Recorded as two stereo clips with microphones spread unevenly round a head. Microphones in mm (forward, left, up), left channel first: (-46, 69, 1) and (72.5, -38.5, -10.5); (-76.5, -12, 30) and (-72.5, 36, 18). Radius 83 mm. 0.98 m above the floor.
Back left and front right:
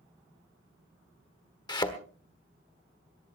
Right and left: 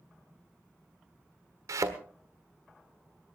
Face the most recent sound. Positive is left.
turn(degrees=75)